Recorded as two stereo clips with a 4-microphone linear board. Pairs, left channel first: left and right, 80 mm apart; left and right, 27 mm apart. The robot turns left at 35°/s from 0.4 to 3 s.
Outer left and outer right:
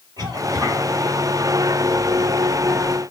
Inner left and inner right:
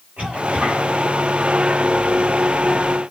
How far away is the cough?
About 5.5 m.